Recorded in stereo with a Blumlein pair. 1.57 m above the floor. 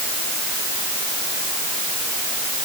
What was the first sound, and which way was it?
Only background noise.